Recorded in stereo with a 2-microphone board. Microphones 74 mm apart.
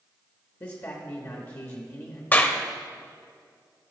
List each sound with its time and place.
0.6 s a man speaking: 45° left (ahead or behind), 0.9 m
2.3 s a clap: 25° left (ahead or behind), 0.6 m